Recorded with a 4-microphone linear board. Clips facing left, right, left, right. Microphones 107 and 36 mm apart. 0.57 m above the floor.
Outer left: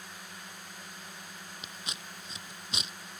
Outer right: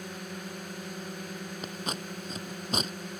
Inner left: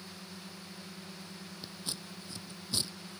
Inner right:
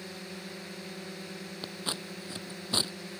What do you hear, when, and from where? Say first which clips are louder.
0.0 s a drone: outer right 8 dB, inner right 6 dB; 60° right (ahead or behind)
1.6 s scissors: outer right 10 dB, inner right 7 dB; 50° right (ahead or behind)